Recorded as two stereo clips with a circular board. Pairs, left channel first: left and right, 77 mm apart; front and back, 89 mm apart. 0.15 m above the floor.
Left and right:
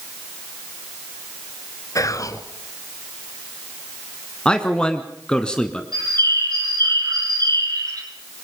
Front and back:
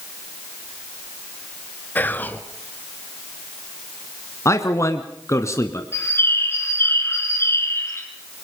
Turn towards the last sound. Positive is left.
turn(degrees=-60)